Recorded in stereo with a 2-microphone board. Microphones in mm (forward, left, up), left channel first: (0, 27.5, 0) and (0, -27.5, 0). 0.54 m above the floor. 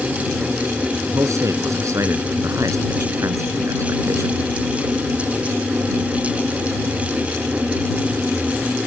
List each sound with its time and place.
1.1 s a man speaking: 70° right (ahead or behind)